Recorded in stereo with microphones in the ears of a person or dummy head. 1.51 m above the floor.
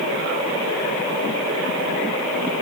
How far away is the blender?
No blender in this recording.